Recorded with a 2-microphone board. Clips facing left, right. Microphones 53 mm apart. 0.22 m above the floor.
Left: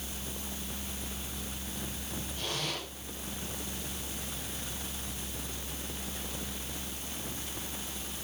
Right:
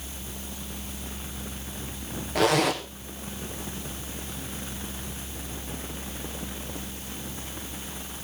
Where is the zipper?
80° right, 2.5 m.